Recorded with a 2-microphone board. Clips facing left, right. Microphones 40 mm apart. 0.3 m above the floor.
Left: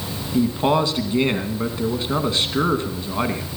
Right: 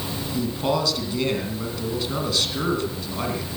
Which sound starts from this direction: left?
A man speaking, at 0.3 s.